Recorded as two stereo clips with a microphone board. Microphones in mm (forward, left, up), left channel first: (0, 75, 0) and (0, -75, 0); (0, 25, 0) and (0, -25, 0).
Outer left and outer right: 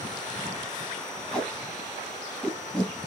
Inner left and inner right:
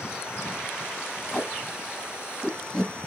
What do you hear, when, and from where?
1.3 s tape being pulled: 5° left (ahead or behind), 1.4 m